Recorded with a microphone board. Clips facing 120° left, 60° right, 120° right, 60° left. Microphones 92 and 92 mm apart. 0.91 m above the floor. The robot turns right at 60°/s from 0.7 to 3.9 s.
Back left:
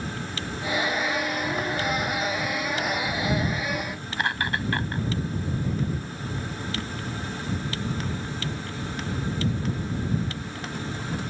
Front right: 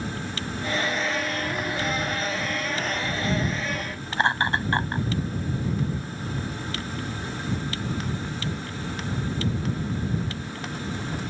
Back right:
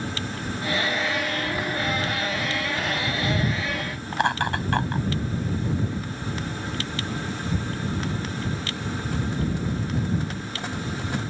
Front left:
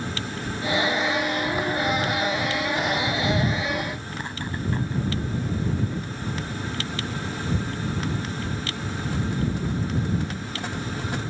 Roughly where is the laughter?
Behind right.